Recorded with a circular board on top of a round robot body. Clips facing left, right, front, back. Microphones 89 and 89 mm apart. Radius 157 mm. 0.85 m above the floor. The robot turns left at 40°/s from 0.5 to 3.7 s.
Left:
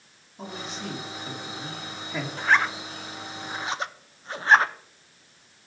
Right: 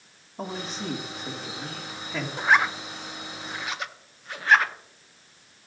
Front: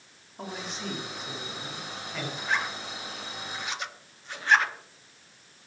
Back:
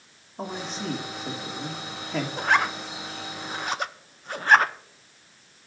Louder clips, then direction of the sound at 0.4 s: Right 3 dB, back 4 dB; 125° right.